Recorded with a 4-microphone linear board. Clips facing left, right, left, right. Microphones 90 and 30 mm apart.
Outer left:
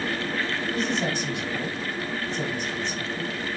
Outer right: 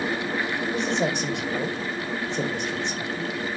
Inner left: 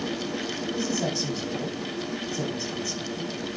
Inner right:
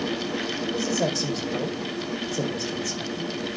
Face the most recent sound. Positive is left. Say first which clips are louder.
# outer right 2 dB, inner right 3 dB
turn(degrees=-75)  # may be behind; listen again after turning